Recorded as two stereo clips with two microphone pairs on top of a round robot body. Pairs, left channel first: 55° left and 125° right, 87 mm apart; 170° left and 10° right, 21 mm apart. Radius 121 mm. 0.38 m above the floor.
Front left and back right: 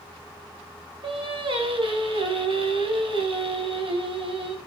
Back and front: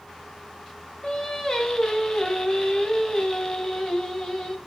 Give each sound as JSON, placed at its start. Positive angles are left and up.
{"t": 1.0, "sound": "singing", "azimuth_deg": -135, "distance_m": 3.5}